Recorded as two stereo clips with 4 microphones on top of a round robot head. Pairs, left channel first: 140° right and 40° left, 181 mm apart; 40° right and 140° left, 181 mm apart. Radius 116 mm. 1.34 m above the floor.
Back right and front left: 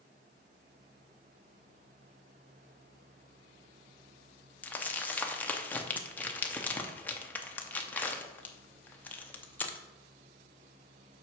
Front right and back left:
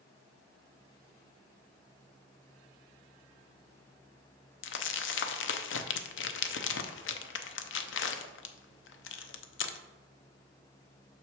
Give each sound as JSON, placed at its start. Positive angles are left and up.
{"t": 4.6, "sound": "crumpling", "azimuth_deg": -55, "distance_m": 0.6}